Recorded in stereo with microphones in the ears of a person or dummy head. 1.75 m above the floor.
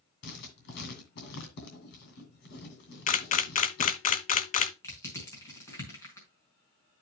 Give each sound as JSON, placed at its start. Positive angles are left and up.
{"t": 0.2, "sound": "writing", "side_deg": 55, "distance_m": 3.0}
{"t": 3.1, "sound": "a camera shutter", "side_deg": 45, "distance_m": 0.7}
{"t": 4.8, "sound": "crushing", "side_deg": 20, "distance_m": 4.5}